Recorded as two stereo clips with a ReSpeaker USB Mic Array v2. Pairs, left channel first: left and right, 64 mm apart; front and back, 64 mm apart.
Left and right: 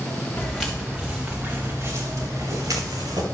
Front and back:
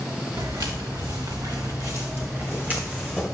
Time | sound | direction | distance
0.4 | footsteps | 170° left | 2.5 m